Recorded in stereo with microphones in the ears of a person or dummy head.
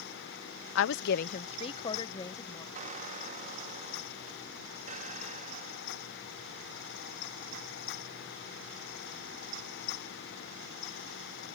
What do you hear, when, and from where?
0.8 s a woman speaking: 75° left (ahead or behind); by 2.6 s 20° left (ahead or behind)
2.8 s a squeak: 45° right (ahead or behind)